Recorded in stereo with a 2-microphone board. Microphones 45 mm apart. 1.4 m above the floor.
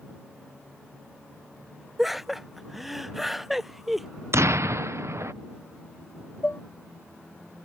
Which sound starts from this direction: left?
Dishes clattering, at 6.4 s.